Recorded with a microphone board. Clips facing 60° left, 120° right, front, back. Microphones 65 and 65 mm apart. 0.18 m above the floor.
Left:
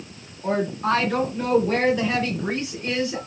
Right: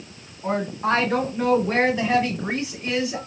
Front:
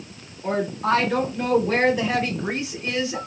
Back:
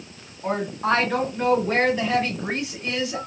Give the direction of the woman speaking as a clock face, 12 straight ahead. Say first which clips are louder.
Left 1 dB, front 1 dB; 5 o'clock.